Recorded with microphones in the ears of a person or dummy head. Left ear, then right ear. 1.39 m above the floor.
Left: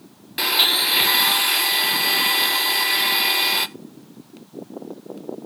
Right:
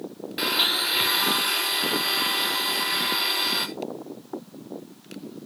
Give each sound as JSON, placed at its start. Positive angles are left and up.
{"t": 0.4, "sound": "a blender", "side_deg": 20, "distance_m": 1.3}